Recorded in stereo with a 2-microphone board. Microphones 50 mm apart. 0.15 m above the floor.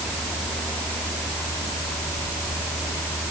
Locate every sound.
Only background noise.